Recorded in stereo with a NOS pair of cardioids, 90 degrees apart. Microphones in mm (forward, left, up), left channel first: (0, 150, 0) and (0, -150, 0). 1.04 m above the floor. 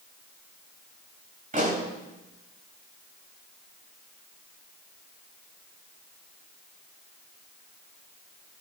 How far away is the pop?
About 7.5 m.